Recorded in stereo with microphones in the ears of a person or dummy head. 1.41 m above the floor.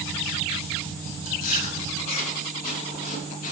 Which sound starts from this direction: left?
Chewing, at 1.2 s.